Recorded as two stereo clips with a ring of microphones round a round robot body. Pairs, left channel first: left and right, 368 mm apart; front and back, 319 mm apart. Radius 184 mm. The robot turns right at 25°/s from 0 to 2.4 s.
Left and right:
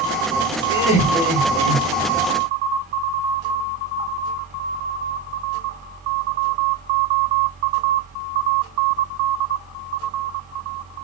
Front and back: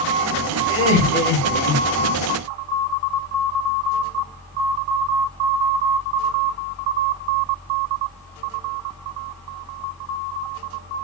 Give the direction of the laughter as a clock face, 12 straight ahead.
11 o'clock.